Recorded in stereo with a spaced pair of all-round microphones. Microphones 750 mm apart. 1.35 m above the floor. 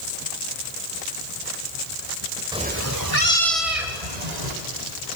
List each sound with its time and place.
2.5 s a cat meowing: 5° right (ahead or behind), 1.6 m; by 4.5 s 65° right (ahead or behind), 3 m